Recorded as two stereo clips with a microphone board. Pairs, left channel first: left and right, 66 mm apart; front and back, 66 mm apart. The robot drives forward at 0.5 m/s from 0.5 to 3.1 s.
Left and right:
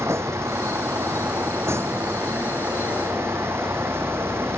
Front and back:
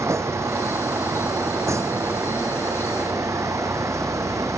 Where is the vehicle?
140° right.